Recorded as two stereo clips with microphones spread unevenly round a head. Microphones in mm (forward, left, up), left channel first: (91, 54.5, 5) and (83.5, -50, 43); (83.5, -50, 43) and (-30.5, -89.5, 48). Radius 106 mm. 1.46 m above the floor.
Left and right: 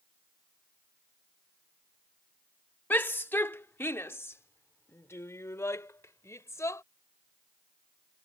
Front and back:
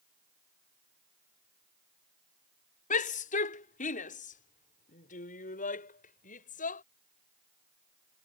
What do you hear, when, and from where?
2.9 s a shout: 10° left; by 6.8 s 20° left